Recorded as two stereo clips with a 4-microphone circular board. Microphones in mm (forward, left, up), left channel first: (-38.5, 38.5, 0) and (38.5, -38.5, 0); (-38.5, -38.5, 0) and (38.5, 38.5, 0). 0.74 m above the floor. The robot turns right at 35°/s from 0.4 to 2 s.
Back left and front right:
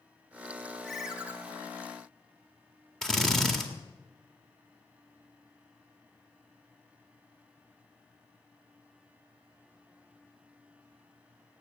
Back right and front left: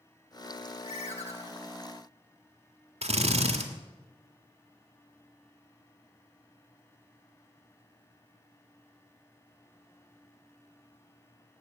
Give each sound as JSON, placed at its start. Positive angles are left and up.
{"t": 0.8, "sound": "a ringtone", "azimuth_deg": -140, "distance_m": 1.6}
{"t": 3.0, "sound": "a drill", "azimuth_deg": 50, "distance_m": 1.8}